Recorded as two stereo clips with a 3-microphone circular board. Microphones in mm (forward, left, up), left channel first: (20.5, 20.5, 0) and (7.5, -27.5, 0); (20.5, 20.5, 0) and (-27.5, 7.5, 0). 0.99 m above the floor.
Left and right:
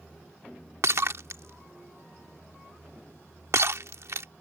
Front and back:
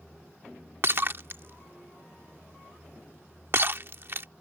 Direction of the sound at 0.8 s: 125° right.